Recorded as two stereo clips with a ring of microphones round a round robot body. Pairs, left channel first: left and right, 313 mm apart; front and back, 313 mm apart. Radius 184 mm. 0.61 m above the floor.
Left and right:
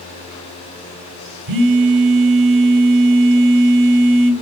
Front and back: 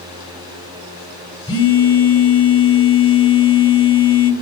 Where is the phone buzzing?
75° right, 1.5 m.